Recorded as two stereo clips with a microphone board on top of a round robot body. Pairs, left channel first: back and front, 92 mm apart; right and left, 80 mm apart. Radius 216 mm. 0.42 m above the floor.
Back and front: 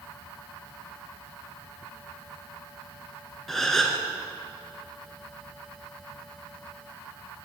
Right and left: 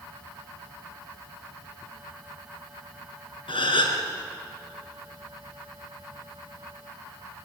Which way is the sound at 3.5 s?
95° right.